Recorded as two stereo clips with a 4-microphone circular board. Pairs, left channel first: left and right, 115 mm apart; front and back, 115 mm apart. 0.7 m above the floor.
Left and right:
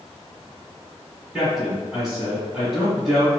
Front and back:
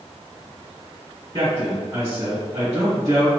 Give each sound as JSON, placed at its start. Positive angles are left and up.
{"t": 1.3, "sound": "a man speaking", "azimuth_deg": -175, "distance_m": 1.4}